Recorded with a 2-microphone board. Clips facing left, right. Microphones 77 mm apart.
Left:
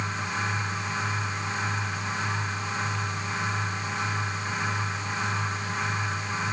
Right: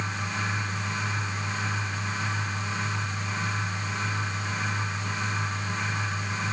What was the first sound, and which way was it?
Only background noise.